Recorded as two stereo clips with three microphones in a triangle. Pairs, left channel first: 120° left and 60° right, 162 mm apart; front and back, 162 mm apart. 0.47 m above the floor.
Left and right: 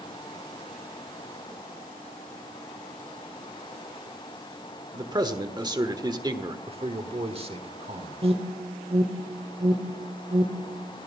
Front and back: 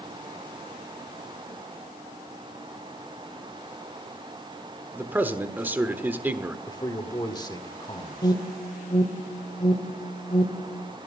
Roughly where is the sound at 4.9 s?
Right.